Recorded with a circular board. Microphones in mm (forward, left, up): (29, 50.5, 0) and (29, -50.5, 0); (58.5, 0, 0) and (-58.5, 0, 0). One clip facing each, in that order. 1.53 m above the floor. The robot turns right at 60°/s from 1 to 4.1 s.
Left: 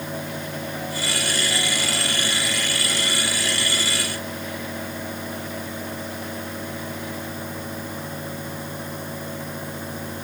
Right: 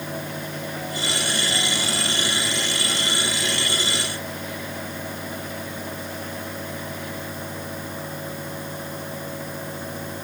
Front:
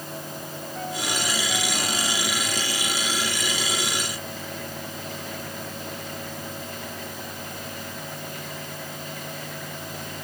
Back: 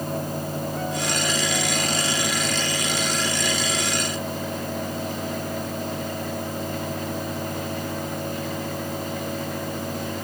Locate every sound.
Only background noise.